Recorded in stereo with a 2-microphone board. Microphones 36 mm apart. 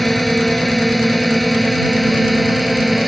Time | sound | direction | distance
0.0 | a drone | 5° left (ahead or behind) | ?